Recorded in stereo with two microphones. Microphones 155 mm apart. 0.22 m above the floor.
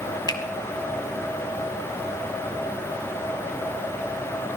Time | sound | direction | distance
0.3 | a finger snap | 30° left (ahead or behind) | 1.3 m